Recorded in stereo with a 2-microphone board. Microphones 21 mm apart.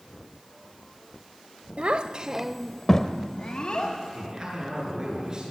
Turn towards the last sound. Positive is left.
turn(degrees=-40)  # may be behind; listen again after turning